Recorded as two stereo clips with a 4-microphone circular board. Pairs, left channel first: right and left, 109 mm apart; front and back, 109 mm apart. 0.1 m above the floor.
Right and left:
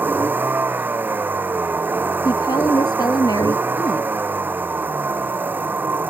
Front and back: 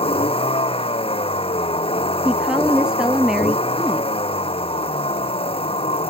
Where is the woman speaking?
100° right.